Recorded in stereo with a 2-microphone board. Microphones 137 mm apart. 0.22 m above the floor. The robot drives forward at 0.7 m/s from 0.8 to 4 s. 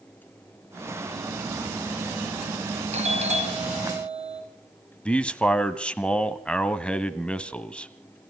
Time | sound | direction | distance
2.9 | a doorbell | 55° right (ahead or behind) | 3 m
5.0 | a man speaking | 10° left (ahead or behind) | 1.2 m